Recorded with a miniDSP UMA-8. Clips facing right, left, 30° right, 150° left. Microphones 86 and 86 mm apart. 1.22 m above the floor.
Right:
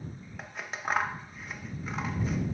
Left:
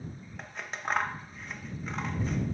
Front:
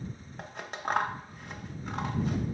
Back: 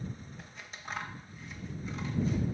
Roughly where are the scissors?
Ahead.